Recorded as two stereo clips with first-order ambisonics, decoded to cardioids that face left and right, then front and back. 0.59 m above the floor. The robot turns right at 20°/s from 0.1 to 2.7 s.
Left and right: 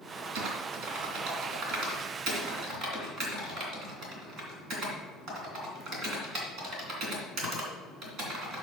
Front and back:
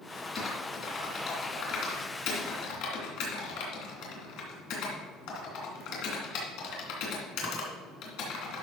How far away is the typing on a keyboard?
About 2.5 m.